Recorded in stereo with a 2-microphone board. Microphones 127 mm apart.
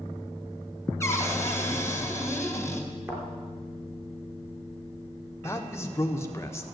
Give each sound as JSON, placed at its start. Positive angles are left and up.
{"t": 1.0, "sound": "a cupboard door", "side_deg": 20, "distance_m": 2.0}
{"t": 3.1, "sound": "a thud", "side_deg": -20, "distance_m": 3.5}
{"t": 5.4, "sound": "a man speaking", "side_deg": 20, "distance_m": 1.2}